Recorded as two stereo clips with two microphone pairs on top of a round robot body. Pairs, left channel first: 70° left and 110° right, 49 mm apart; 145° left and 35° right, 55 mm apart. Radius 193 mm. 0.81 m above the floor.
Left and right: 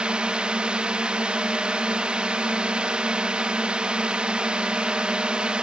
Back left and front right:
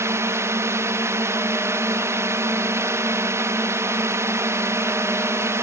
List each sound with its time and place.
0.0 s a drone: 45° right